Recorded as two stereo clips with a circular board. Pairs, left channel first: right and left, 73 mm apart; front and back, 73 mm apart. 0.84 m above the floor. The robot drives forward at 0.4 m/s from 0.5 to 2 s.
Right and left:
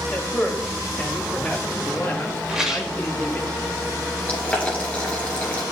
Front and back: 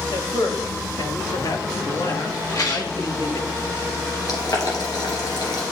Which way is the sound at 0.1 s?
20° right.